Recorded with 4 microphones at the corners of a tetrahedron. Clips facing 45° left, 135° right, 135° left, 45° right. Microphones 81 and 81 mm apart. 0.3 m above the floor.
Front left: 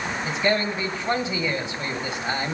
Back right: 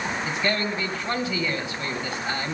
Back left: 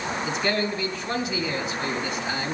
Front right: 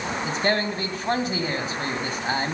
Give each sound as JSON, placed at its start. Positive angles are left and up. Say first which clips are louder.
{"t": 0.2, "sound": "a man speaking", "louder": "front left 4 dB, front right 2 dB", "azimuth_deg": -15, "distance_m": 1.9}